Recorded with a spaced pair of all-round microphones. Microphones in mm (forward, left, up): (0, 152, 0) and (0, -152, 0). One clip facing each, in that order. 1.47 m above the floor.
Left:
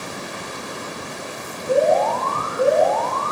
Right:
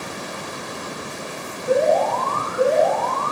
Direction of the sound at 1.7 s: 80° right.